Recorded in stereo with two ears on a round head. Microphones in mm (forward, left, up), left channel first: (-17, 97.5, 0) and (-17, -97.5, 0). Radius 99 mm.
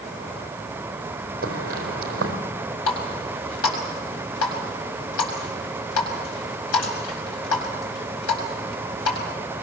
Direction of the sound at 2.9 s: 85° left.